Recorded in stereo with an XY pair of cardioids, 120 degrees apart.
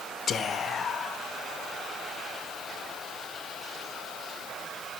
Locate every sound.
0.3 s whispering: 45° left, 0.5 m